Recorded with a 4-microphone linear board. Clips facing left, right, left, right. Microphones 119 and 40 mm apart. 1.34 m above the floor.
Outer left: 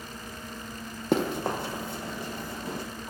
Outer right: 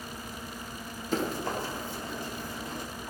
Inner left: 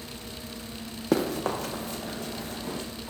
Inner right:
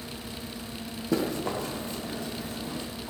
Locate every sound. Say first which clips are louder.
1.1 s running footsteps: outer left 4 dB, inner left 2 dB; 65° left (ahead or behind), 3 m; by 2.8 s 70° left (ahead or behind), 4 m